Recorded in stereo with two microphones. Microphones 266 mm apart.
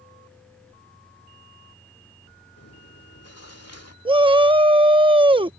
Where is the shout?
20° right (ahead or behind).